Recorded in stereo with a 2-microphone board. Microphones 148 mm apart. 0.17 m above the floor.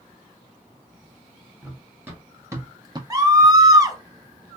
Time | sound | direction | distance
1.6 | running footsteps | 15° right (ahead or behind) | 2 m
3.1 | a scream | 25° right (ahead or behind) | 1.1 m